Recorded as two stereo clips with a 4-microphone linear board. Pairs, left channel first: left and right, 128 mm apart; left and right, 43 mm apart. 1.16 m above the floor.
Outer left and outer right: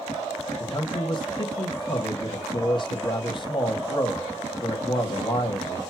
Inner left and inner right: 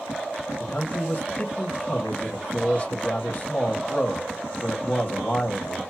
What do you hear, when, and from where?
0.6 s a man speaking: 40° left (ahead or behind), 1.0 m